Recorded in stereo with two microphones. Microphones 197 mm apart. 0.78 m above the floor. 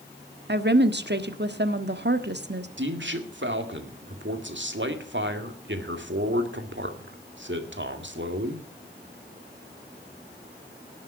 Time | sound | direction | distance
0.5 | a woman speaking | 60° right (ahead or behind) | 1.3 m
2.8 | a man speaking | 70° right (ahead or behind) | 2 m